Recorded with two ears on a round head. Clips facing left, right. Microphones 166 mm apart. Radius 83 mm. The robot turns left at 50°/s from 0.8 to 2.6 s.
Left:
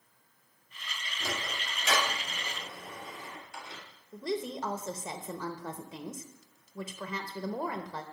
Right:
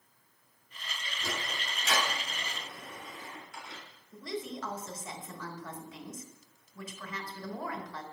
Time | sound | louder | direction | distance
1.2 | a sliding door | left 1 dB | 70° left (ahead or behind) | 1.9 m
4.1 | a woman speaking | left 4 dB | 25° left (ahead or behind) | 0.6 m